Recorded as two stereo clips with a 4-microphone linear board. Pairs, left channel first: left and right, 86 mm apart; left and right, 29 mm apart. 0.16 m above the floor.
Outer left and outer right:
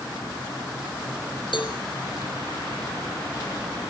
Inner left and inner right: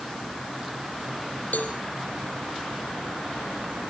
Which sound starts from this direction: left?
A cowbell, at 1.5 s.